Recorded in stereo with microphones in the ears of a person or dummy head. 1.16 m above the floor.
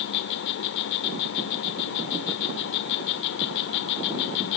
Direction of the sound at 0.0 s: 50° left (ahead or behind).